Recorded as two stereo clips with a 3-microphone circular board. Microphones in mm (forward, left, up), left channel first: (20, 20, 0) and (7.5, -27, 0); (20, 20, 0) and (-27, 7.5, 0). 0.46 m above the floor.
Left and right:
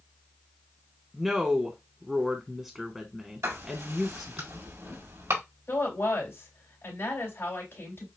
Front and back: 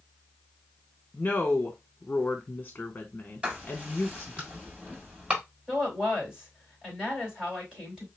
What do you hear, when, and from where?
1.1 s a woman speaking: 35° right, 1.2 m
3.4 s writing: 95° right, 4.5 m
5.7 s a woman speaking: 120° left, 3.5 m